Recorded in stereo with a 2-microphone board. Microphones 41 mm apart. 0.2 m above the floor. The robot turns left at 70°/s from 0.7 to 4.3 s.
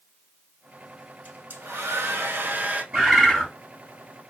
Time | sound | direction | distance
1.2 | a hair dryer | 40° right | 0.7 m
2.9 | a bird | 160° right | 1.7 m